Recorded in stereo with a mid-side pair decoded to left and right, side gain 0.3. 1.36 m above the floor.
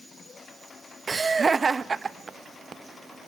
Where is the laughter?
45° right, 1.2 m.